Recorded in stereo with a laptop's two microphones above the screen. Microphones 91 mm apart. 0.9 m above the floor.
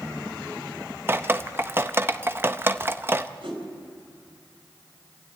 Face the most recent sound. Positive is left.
turn(degrees=-75)  # may be behind; listen again after turning